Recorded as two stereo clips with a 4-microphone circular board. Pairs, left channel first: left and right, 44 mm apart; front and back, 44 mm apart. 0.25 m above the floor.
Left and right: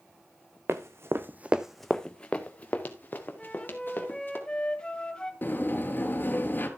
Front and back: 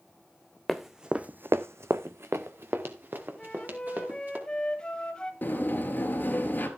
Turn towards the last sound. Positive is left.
turn(degrees=45)